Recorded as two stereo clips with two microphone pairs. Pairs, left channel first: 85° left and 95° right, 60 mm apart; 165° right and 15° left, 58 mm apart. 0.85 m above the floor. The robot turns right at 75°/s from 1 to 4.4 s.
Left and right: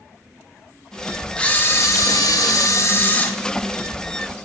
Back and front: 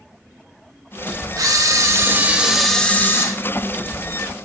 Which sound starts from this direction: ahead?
A camera shutter, at 1.4 s.